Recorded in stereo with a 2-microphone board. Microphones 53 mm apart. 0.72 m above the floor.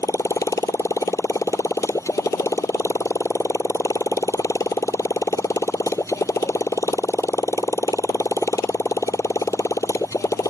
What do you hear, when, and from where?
0.0 s a motorcycle: 75° left (ahead or behind)